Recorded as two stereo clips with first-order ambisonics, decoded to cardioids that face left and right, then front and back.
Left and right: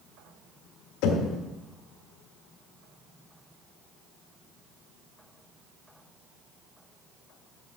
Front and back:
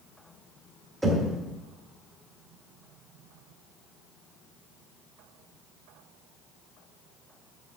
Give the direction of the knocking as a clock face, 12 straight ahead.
9 o'clock.